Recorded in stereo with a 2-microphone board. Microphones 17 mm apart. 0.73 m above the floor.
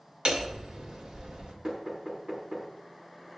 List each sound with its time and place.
0.2 s hammering: 65° right (ahead or behind), 2 m
1.6 s knocking: 35° right (ahead or behind), 5 m